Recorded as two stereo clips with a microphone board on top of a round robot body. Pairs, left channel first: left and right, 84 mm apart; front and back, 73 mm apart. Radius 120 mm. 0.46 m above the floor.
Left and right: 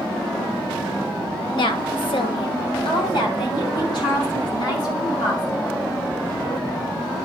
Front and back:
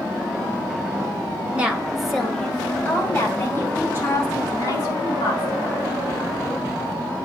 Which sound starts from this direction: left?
A woman speaking, at 1.5 s.